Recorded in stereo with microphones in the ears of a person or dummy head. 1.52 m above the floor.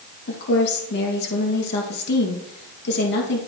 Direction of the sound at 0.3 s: 55° left (ahead or behind).